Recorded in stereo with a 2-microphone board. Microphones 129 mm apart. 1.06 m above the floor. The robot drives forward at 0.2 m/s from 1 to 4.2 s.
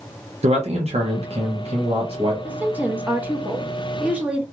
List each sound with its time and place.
0.4 s a man speaking: 55° right (ahead or behind), 0.7 m; by 2.3 s 45° right (ahead or behind), 0.8 m
2.4 s a woman speaking: 15° right (ahead or behind), 0.5 m; by 4.4 s 10° right (ahead or behind), 0.7 m